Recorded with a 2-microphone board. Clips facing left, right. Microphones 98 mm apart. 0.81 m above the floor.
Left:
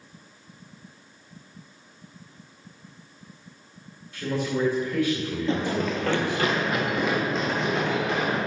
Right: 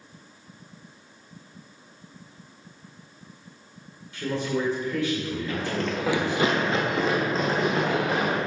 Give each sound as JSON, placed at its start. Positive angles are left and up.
{"t": 4.1, "sound": "a man speaking", "side_deg": -15, "distance_m": 2.0}
{"t": 5.5, "sound": "running footsteps", "side_deg": 25, "distance_m": 0.8}